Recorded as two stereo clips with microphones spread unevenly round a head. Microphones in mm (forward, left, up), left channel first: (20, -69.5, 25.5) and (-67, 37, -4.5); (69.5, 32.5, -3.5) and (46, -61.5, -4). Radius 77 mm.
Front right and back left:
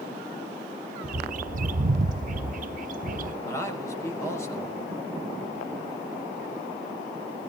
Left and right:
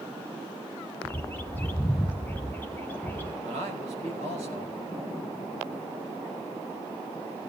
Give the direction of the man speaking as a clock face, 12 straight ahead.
4 o'clock.